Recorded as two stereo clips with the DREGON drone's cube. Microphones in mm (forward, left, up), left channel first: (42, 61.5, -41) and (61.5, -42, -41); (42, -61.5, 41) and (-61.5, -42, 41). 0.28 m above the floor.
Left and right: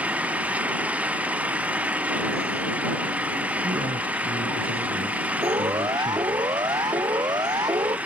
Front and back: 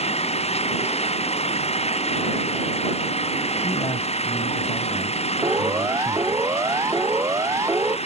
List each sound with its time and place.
0.0 s an engine running: 5° right
3.6 s a man speaking: 70° right
5.4 s a siren: 130° right